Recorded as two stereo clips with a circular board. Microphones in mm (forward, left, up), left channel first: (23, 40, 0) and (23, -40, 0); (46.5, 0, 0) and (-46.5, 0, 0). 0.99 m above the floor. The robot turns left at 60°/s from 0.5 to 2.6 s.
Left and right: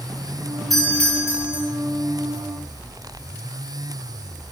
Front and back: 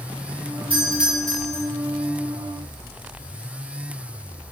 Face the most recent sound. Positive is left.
turn(degrees=65)